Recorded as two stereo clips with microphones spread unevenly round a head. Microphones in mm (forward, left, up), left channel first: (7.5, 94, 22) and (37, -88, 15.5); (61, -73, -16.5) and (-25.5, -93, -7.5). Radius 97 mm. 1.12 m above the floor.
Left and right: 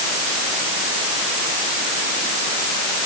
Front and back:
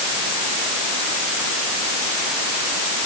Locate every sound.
Only background noise.